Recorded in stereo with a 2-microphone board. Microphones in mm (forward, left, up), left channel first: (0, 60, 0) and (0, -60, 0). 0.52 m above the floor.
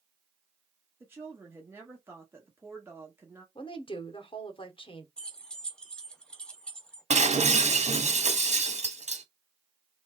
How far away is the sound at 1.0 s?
About 1.2 m.